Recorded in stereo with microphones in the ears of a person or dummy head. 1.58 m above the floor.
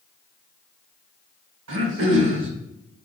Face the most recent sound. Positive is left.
turn(degrees=-65)  # may be behind; listen again after turning